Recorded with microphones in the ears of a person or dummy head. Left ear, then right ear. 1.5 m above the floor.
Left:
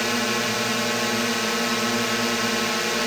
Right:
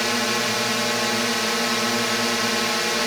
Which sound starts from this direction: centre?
A drone, at 0.0 s.